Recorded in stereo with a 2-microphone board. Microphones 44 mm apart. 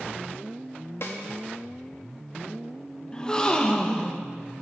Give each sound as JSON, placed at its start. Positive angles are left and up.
{"t": 1.0, "sound": "a snare drum", "side_deg": 70, "distance_m": 1.2}
{"t": 3.1, "sound": "a gasp", "side_deg": 20, "distance_m": 0.7}